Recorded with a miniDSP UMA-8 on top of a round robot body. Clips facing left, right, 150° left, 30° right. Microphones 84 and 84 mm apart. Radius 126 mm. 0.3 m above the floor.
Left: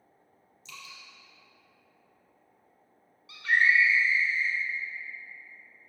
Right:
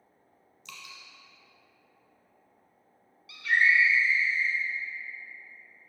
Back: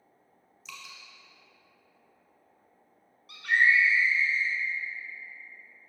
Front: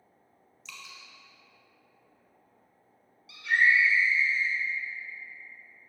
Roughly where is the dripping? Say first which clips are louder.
Even, back 1 dB; behind right.